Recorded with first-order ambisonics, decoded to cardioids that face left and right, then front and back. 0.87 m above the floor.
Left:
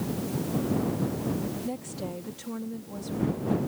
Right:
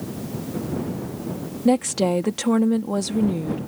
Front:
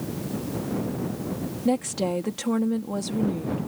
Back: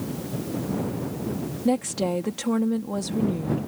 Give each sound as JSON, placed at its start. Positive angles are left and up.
{"t": 1.6, "sound": "a woman speaking", "azimuth_deg": -90}